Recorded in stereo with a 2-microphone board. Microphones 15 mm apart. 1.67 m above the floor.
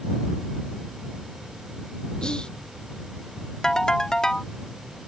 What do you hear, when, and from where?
2.2 s whispering: 70° left (ahead or behind)
3.6 s a ringtone: 40° left (ahead or behind)